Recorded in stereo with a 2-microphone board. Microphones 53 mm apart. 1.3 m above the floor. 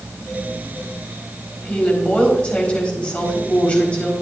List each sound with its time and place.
1.6 s a woman speaking: 25° left (ahead or behind), 4 m